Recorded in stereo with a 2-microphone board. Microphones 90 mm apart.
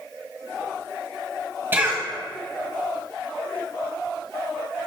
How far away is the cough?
About 1.5 m.